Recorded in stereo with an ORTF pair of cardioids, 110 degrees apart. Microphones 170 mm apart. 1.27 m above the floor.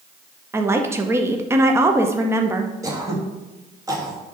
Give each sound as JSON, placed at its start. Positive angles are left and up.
{"t": 0.5, "sound": "a woman speaking", "azimuth_deg": -15, "distance_m": 0.7}
{"t": 2.8, "sound": "throat clearing", "azimuth_deg": -20, "distance_m": 1.3}